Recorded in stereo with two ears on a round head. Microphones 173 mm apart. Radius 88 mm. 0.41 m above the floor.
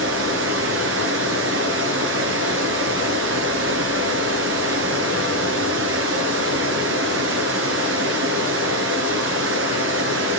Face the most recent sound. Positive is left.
turn(degrees=-70)  # may be behind; listen again after turning